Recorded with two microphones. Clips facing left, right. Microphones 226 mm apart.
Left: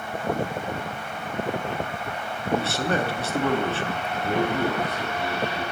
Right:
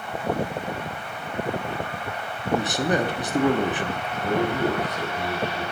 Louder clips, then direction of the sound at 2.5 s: Right 2 dB; 15° right (ahead or behind).